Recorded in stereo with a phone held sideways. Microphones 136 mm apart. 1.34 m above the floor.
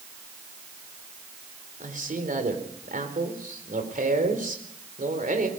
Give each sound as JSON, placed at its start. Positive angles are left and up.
{"t": 1.8, "sound": "a man speaking", "side_deg": -70, "distance_m": 4.0}